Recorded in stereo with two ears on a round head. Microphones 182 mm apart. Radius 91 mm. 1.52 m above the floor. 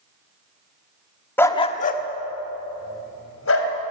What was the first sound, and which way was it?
A dog barking, 10° left (ahead or behind).